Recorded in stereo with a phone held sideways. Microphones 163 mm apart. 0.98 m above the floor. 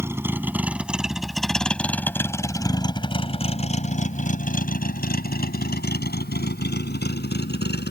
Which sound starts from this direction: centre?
A vehicle, at 0.0 s.